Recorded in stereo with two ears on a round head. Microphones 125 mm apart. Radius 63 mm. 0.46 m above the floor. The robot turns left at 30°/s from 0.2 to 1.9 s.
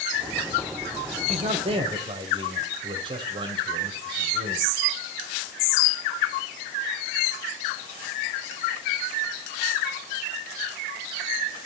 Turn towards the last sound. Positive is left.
turn(degrees=-35)  # may be behind; listen again after turning